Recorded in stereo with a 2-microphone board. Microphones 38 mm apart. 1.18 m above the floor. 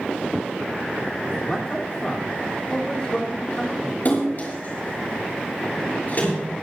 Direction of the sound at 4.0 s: 45° left (ahead or behind).